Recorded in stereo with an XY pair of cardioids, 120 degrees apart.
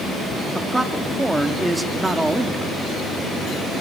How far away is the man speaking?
About 3 m.